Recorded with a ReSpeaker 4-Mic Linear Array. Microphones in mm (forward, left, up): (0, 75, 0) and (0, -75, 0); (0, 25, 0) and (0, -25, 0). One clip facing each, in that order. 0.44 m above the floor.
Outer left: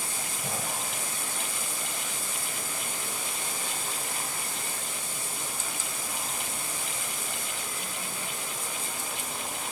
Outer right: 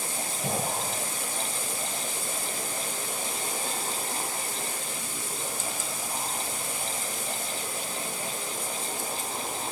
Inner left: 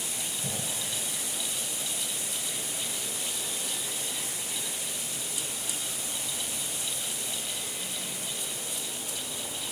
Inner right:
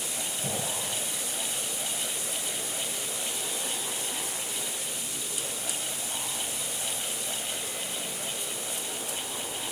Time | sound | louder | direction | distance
0.4 | an explosion | outer right 5 dB, inner right 5 dB | 25° right (ahead or behind) | ?